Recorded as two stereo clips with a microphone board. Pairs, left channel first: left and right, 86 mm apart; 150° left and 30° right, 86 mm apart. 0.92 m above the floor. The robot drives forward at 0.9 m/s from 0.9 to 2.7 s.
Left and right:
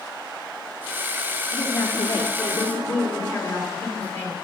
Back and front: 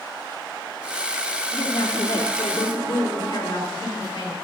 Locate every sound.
1.5 s a woman speaking: 145° left, 1.7 m; by 4.3 s 160° left, 2.5 m